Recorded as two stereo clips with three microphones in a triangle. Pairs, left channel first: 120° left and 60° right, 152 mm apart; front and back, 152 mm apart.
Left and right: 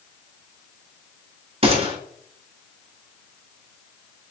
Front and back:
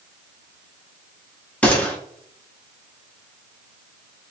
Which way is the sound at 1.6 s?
75° right.